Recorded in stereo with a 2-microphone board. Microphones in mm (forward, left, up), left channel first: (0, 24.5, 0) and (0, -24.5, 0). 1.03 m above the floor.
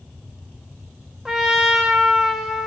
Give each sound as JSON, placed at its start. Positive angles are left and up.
{"t": 1.2, "sound": "a trumpet", "side_deg": -5, "distance_m": 0.7}